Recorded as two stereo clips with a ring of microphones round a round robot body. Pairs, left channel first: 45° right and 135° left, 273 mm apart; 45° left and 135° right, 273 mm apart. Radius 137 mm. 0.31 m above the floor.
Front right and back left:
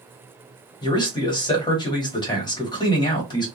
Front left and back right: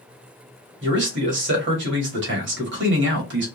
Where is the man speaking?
115° right, 1.2 m.